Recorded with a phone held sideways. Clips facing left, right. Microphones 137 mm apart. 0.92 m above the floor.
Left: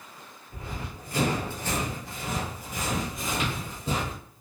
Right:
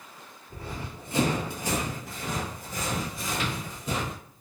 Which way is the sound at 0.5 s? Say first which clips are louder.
Right 1 dB; 40° right (ahead or behind).